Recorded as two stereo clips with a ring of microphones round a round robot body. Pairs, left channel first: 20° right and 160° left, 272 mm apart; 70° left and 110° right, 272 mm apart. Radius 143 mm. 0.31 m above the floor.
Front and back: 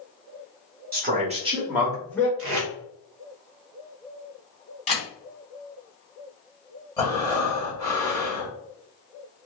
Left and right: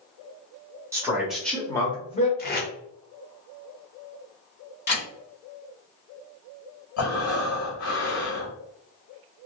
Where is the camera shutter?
35° left, 1.8 m.